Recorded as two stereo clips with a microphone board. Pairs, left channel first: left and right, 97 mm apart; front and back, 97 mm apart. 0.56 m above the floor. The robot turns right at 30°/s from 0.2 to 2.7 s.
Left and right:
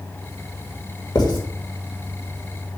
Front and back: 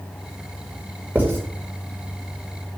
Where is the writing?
110° left, 2.0 m; by 1.4 s 120° left, 2.0 m.